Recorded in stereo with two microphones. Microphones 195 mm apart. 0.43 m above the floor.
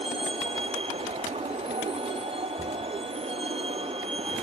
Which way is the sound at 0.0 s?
30° right (ahead or behind).